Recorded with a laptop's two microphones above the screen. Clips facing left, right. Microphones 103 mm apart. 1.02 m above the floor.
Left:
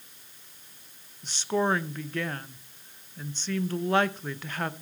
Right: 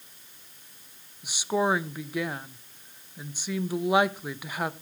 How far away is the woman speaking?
About 0.8 m.